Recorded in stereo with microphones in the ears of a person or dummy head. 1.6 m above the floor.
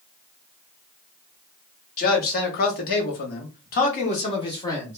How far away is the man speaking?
About 1.3 m.